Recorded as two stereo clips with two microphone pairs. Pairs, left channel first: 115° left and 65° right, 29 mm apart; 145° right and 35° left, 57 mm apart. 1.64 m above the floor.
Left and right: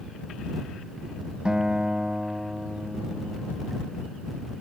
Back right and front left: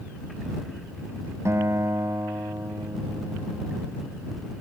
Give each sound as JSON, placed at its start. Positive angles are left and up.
{"t": 1.4, "sound": "a guitar", "azimuth_deg": -5}